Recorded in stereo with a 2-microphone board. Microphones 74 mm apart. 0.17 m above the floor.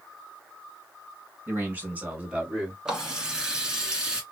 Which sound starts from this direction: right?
A man speaking, at 1.5 s.